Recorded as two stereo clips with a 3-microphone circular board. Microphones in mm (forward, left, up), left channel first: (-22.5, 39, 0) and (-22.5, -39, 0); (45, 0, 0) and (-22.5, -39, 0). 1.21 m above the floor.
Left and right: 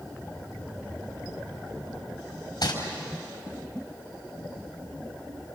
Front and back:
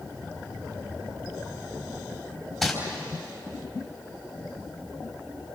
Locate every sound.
2.6 s crumpling: 115° left, 4 m